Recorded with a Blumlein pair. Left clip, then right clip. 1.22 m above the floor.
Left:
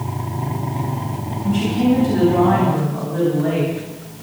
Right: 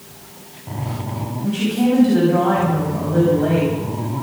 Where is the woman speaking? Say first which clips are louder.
Left 1 dB; 35° right, 9.5 m.